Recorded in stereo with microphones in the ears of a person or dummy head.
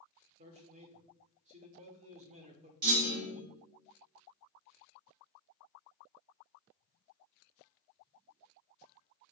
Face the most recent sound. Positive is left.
turn(degrees=-45)  # may be behind; listen again after turning